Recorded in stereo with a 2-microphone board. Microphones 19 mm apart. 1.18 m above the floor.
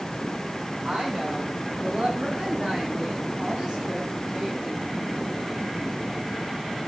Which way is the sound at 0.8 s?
65° right (ahead or behind).